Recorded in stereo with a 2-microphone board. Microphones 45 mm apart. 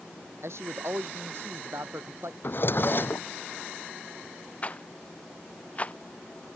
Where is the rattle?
30° left (ahead or behind).